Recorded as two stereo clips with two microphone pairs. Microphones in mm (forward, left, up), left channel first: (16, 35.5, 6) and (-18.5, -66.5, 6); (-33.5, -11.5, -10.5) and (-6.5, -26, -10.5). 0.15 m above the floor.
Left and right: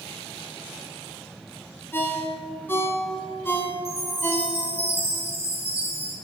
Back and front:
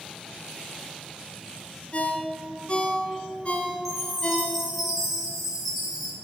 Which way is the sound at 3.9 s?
115° right.